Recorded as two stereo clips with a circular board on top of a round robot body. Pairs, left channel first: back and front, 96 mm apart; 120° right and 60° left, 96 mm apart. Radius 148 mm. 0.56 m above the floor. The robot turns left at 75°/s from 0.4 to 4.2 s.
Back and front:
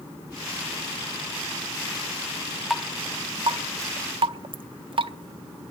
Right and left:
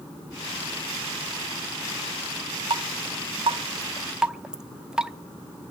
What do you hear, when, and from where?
2.7 s dripping: 90° left, 0.6 m; by 5.1 s 25° right, 0.6 m